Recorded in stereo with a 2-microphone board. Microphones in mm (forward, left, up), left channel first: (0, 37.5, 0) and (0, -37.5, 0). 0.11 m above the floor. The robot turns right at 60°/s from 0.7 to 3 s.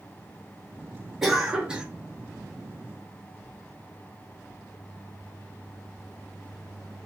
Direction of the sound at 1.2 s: 5° right (ahead or behind).